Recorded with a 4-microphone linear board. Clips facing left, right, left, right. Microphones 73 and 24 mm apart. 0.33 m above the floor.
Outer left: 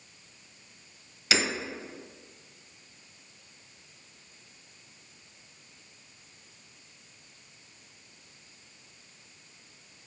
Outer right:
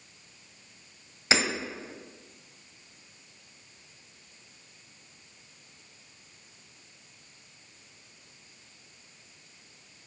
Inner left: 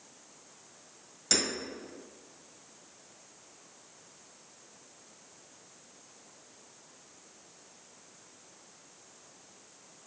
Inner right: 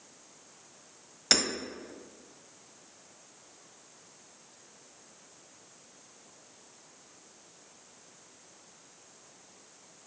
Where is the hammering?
30° right (ahead or behind), 1.2 m.